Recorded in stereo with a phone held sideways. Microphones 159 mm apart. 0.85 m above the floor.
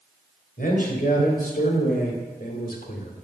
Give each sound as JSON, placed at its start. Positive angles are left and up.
{"t": 0.6, "sound": "a man speaking", "side_deg": 65, "distance_m": 3.0}